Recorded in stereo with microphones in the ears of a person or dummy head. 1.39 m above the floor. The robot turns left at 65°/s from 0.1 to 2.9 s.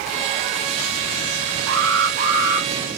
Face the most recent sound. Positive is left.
turn(degrees=165)